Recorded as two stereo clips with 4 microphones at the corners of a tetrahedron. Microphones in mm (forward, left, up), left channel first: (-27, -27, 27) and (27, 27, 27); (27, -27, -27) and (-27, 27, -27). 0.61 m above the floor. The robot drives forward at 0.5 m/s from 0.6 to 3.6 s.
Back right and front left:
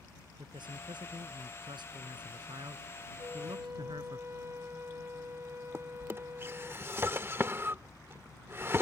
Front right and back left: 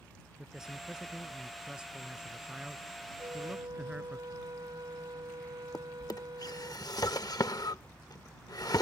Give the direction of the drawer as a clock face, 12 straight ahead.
12 o'clock.